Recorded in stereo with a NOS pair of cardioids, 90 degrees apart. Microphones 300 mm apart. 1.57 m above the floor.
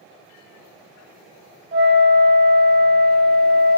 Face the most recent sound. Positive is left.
turn(degrees=-40)